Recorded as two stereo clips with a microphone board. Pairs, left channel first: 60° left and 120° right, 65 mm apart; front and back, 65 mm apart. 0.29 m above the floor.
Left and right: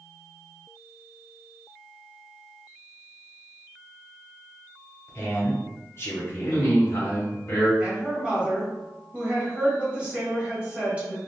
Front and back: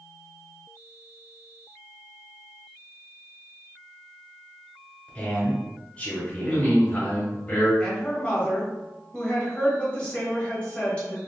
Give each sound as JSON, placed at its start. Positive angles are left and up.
{"t": 5.1, "sound": "a man speaking", "azimuth_deg": 50, "distance_m": 1.3}
{"t": 6.4, "sound": "a man speaking", "azimuth_deg": 50, "distance_m": 1.0}
{"t": 7.8, "sound": "a woman speaking", "azimuth_deg": -60, "distance_m": 1.2}